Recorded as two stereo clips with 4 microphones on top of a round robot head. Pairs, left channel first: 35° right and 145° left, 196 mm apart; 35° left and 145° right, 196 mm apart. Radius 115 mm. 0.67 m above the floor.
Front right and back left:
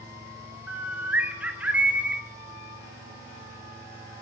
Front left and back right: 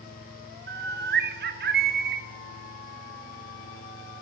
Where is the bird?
135° right, 0.9 m.